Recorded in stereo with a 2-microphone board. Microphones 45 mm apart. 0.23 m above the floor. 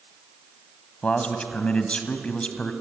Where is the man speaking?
25° left (ahead or behind), 1.7 m.